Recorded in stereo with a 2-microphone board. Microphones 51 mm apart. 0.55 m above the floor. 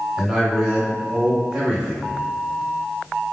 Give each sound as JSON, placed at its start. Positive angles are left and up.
{"t": 0.2, "sound": "a man speaking", "side_deg": -15, "distance_m": 1.3}